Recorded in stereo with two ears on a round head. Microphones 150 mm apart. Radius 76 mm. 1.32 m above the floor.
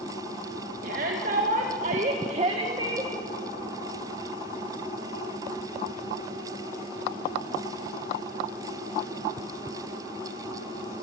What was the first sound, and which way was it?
A shout, 55° right (ahead or behind).